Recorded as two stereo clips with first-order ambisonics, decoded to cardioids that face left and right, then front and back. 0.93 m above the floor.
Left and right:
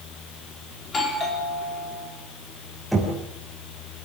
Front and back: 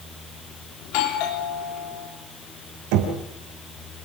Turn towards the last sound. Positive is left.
turn(degrees=175)